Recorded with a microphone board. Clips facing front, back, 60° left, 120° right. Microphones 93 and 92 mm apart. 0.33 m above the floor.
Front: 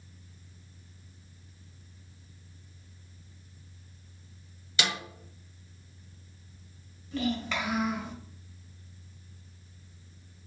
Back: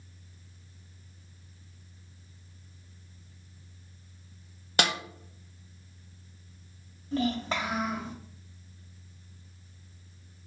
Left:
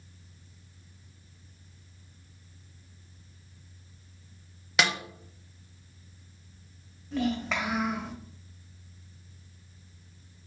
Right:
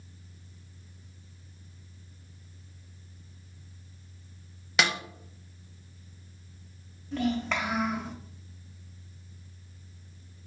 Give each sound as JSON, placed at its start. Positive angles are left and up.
{"t": 4.8, "sound": "a snare drum", "azimuth_deg": 150, "distance_m": 0.5}
{"t": 7.1, "sound": "a child speaking", "azimuth_deg": 145, "distance_m": 1.3}